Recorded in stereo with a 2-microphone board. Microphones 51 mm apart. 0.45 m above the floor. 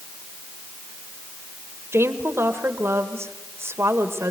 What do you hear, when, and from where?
1.9 s a woman speaking: 55° right (ahead or behind), 1.8 m